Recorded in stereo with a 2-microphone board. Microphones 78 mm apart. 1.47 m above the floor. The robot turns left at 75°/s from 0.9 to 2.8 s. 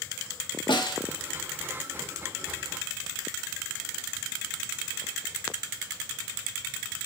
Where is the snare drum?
85° left, 3 m; by 1.0 s 90° left, 3 m.